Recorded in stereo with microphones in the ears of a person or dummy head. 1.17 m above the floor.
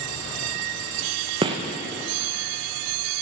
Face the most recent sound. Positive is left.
turn(degrees=-25)  # may be behind; listen again after turning